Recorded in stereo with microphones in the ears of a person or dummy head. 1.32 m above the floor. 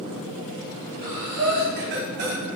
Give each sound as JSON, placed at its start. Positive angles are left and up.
{"t": 1.0, "sound": "breathing", "side_deg": -50, "distance_m": 1.0}